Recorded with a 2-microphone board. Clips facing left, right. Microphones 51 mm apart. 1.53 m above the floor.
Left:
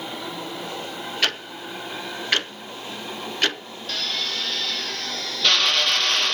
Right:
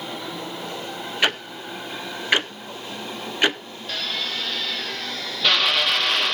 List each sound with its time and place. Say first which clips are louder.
1.2 s ticking: right 3 dB; 15° right (ahead or behind), 0.6 m
3.9 s a drill: even; 5° right (ahead or behind), 0.9 m